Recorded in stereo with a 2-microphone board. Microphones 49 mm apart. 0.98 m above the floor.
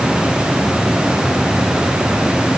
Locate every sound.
Only background noise.